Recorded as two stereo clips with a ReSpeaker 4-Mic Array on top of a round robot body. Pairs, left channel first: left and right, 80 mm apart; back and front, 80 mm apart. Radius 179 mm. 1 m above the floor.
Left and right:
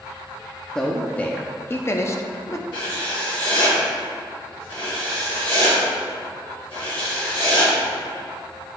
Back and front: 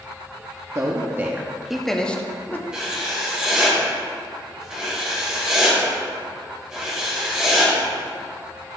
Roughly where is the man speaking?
Ahead.